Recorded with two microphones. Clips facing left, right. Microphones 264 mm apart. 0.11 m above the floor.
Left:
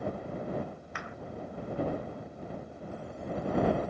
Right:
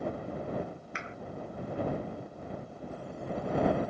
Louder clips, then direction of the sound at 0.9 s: Even; 25° right (ahead or behind).